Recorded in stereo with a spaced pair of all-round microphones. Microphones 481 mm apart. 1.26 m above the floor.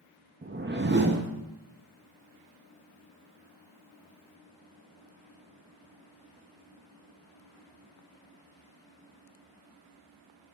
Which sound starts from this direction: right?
A whoosh, at 0.4 s.